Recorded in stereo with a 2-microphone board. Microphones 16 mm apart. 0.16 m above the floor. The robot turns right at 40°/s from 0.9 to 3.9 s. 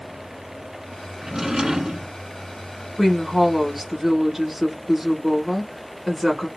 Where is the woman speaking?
5° left (ahead or behind), 1.1 m; by 6.5 s 10° right (ahead or behind), 1.1 m.